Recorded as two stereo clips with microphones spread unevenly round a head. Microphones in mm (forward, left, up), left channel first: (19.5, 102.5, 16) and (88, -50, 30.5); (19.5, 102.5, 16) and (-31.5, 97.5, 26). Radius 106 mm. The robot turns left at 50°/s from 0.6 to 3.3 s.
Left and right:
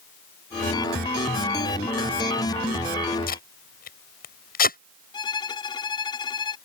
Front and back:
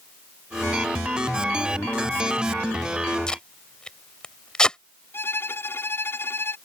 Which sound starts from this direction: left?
Tape being pulled, at 3.3 s.